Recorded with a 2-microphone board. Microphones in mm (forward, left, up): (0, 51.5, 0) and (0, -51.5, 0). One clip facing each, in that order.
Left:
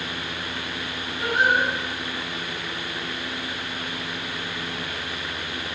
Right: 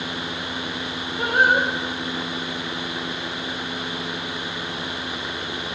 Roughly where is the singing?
Right.